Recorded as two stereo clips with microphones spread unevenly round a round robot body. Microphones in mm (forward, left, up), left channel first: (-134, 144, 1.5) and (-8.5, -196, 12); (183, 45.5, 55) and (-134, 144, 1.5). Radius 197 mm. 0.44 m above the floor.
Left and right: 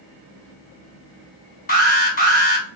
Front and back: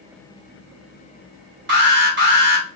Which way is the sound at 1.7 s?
160° left.